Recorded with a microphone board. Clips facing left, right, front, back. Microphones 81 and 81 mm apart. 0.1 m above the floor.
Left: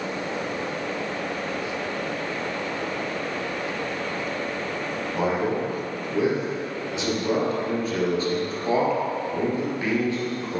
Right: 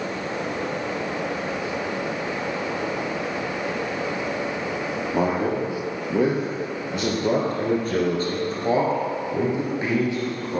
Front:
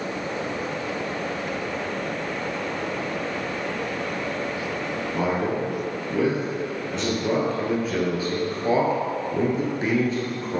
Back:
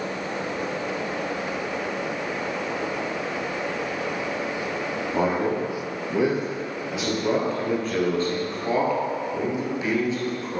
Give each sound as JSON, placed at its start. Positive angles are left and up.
{"t": 5.1, "sound": "a man speaking", "azimuth_deg": -120, "distance_m": 2.5}